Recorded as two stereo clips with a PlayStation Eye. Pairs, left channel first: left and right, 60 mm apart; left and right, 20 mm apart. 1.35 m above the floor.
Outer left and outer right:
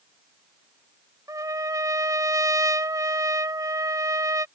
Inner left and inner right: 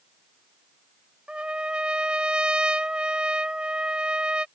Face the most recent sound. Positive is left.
turn(degrees=-65)  # may be behind; listen again after turning